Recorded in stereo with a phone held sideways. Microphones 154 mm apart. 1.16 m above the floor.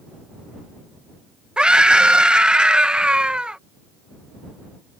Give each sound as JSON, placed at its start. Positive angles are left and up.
{"t": 1.6, "sound": "a scream", "side_deg": -5}